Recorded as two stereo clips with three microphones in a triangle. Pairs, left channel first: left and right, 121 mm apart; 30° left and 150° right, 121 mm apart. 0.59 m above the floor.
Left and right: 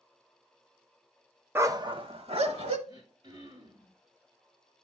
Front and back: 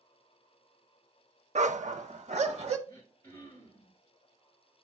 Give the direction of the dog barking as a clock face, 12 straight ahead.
5 o'clock.